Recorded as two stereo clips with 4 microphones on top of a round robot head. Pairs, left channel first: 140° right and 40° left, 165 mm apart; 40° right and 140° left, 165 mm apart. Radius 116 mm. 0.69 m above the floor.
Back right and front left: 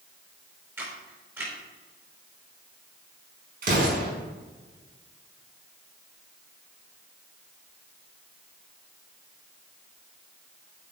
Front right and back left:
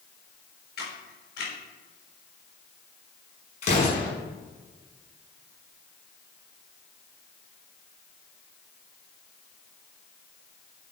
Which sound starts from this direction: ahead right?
A camera shutter, at 0.8 s.